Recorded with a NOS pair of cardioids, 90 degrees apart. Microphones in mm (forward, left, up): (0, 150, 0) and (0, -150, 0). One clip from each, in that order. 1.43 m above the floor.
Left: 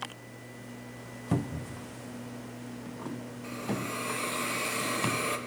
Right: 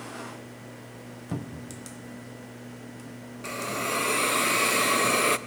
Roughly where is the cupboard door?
Ahead.